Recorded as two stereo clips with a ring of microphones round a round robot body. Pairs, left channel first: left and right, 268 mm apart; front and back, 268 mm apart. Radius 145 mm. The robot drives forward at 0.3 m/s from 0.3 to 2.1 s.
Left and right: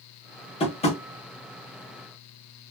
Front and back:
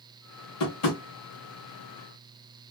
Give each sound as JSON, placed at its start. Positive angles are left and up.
{"t": 0.6, "sound": "tapping", "azimuth_deg": 20, "distance_m": 0.8}